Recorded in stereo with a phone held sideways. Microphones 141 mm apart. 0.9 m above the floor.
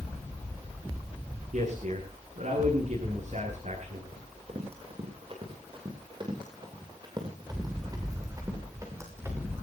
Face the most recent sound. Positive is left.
turn(degrees=-15)  # may be behind; listen again after turning